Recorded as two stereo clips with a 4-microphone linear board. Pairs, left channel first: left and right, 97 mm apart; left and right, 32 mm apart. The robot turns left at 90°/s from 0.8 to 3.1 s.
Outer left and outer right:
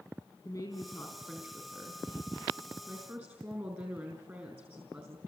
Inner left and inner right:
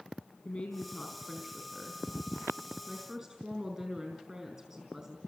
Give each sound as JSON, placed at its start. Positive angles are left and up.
{"t": 0.5, "sound": "a woman speaking", "azimuth_deg": 50, "distance_m": 4.0}